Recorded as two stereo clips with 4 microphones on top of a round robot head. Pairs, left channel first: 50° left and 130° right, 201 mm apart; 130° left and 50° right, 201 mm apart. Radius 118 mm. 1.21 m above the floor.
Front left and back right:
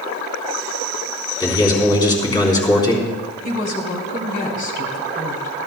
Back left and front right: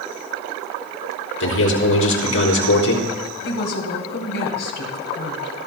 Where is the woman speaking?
100° left, 3 m.